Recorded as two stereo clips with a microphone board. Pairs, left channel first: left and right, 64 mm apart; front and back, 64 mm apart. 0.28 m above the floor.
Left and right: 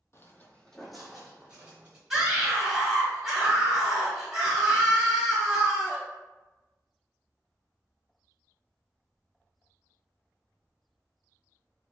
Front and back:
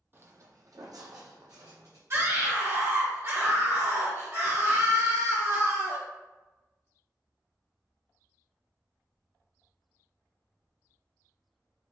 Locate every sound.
0.1 s footsteps: 130° left, 0.5 m; by 2.0 s 160° right, 1.4 m
2.1 s a scream: 175° right, 1.5 m